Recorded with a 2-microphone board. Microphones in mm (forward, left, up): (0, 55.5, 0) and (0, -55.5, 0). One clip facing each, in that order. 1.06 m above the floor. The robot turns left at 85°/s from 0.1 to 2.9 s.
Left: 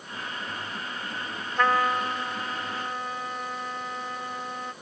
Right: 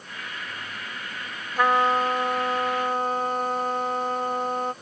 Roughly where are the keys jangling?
No keys jangling in this recording.